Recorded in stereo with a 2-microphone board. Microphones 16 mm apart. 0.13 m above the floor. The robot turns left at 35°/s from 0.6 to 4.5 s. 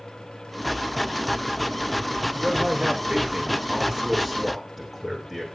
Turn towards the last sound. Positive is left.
turn(degrees=180)